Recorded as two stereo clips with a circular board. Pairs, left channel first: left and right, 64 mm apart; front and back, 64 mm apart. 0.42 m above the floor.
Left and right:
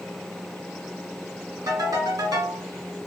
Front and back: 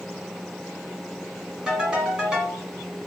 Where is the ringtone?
105° right, 2 m.